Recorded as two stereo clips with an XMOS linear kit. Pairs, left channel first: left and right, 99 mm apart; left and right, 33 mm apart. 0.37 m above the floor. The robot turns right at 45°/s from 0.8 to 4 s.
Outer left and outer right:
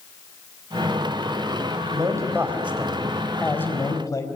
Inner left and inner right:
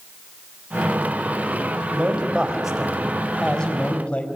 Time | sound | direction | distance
1.9 | a man speaking | 50° right | 2.5 m